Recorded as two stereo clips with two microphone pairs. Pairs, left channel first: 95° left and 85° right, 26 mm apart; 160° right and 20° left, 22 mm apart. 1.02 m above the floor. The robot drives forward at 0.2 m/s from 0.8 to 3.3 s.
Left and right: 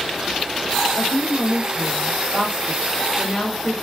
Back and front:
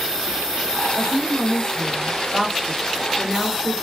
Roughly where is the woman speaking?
Behind left.